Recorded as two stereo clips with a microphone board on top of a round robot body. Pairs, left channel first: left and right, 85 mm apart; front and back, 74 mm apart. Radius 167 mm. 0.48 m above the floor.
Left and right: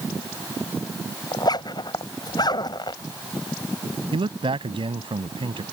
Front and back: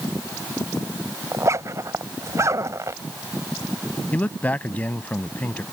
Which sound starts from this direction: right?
A man speaking, at 4.1 s.